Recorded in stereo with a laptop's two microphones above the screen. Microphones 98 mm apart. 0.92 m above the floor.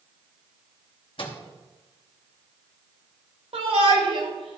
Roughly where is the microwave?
Left.